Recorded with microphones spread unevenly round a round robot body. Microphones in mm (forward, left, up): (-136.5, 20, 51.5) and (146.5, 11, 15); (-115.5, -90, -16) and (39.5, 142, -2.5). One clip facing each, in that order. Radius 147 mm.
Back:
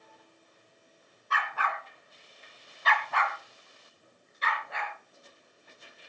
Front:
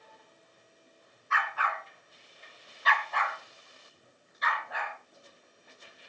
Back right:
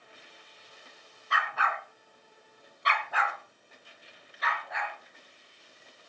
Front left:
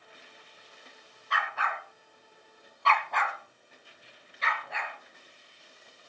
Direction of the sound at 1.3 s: 130° right.